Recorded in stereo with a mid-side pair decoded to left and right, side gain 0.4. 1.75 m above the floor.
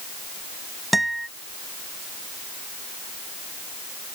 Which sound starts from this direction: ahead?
A guitar, at 0.9 s.